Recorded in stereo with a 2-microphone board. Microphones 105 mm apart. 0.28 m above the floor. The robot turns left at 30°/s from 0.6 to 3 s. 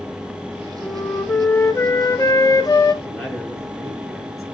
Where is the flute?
160° left, 0.8 m; by 2.9 s 95° left, 0.8 m.